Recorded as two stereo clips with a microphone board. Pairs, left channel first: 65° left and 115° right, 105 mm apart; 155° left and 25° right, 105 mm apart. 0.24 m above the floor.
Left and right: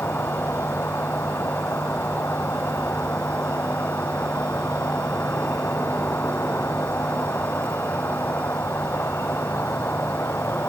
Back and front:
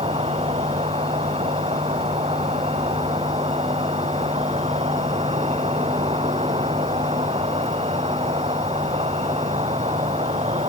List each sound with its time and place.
0.0 s an insect: 5° right